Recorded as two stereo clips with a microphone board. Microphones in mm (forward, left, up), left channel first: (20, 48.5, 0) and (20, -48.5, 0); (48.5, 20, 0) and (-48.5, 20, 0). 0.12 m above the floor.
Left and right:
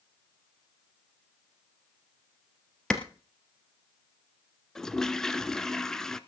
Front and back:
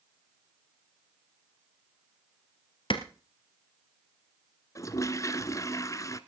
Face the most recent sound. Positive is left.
turn(degrees=10)